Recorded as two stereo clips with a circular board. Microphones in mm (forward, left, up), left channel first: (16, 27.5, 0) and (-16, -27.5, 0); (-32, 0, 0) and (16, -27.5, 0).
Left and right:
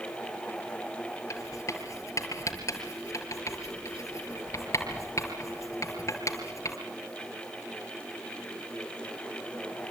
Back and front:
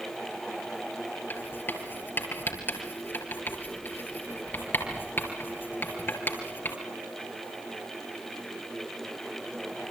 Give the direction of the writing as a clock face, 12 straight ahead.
9 o'clock.